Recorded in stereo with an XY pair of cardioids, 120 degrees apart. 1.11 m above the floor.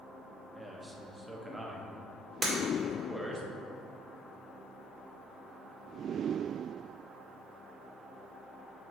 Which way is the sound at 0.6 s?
10° right.